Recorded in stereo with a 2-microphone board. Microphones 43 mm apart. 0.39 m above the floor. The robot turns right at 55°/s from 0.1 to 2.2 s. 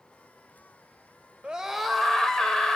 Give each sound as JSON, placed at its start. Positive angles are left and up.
{"t": 1.4, "sound": "a scream", "azimuth_deg": -25, "distance_m": 1.5}